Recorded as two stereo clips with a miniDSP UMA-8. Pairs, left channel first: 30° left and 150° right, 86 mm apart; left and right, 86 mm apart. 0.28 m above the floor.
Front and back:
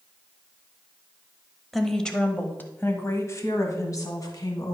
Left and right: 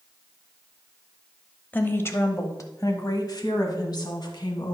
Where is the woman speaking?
115° left, 1.0 m; by 4.7 s 65° left, 2 m.